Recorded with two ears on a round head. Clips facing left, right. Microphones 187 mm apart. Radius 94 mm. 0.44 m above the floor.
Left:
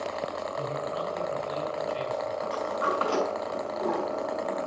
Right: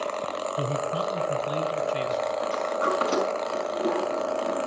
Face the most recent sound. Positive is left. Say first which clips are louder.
# right 3 dB
turn(degrees=-20)  # may be behind; listen again after turning